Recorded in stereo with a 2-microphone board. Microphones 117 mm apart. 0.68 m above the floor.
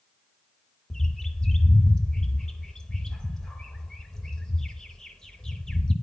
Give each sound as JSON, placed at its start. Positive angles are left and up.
{"t": 0.9, "sound": "a bird", "side_deg": 5, "distance_m": 0.7}